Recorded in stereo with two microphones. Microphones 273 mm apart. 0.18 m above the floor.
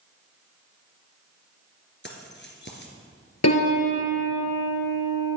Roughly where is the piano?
Left.